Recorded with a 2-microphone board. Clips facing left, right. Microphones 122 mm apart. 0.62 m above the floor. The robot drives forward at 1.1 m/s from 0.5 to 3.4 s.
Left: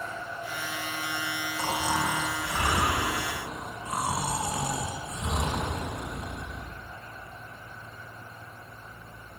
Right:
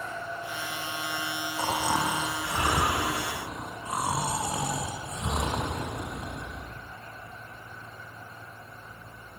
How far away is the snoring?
About 4.5 m.